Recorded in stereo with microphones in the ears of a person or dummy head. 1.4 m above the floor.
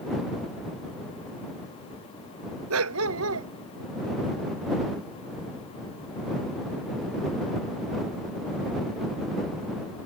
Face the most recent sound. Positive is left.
turn(degrees=-80)